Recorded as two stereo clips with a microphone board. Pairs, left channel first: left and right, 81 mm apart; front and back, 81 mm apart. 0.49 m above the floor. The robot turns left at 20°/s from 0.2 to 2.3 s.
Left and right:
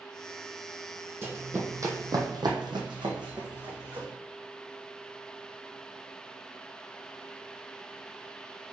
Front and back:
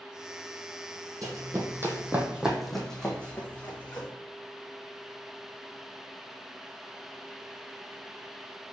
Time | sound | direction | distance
1.2 | running footsteps | 145° right | 0.9 m